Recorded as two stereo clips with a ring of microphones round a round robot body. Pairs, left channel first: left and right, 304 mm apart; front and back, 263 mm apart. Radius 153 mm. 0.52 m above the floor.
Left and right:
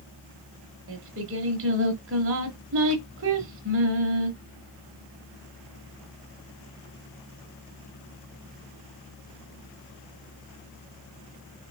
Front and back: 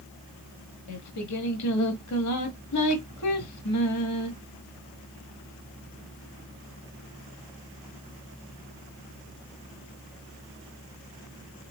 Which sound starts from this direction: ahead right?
Singing, at 0.9 s.